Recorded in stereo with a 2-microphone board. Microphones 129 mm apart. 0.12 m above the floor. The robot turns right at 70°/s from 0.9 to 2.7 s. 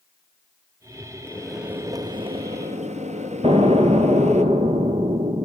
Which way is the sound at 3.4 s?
45° right (ahead or behind).